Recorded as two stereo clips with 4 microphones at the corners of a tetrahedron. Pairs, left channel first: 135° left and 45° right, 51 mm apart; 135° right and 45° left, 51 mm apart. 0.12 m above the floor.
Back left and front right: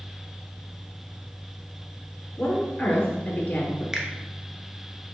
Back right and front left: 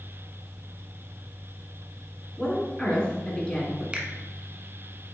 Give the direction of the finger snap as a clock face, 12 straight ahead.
12 o'clock.